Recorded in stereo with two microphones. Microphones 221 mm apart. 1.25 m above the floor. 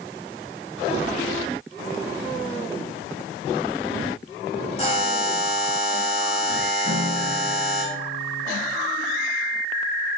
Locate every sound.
4.8 s a buzzer: 30° left (ahead or behind), 5 m
6.8 s a guitar: 60° right (ahead or behind), 5 m